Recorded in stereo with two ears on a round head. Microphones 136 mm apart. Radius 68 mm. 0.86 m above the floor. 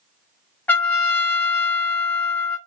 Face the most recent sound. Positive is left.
turn(degrees=10)  # may be behind; listen again after turning